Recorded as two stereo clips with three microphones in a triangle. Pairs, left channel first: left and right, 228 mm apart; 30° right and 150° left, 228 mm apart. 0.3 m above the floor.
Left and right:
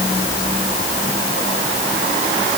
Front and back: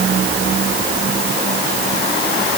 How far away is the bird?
No bird in this recording.